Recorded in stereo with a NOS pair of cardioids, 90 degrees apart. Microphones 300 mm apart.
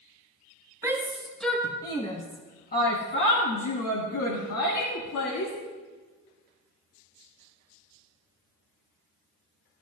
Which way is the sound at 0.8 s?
10° right.